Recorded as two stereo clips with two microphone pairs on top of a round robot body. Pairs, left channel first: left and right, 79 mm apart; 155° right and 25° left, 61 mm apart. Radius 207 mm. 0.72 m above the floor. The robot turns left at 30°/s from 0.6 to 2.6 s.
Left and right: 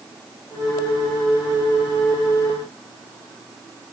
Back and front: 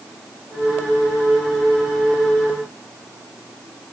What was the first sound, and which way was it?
Only background noise.